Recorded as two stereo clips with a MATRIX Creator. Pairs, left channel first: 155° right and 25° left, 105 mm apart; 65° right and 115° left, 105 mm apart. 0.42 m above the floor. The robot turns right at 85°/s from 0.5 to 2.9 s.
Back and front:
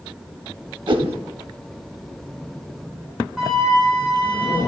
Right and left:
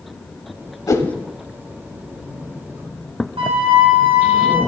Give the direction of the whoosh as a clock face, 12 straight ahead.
12 o'clock.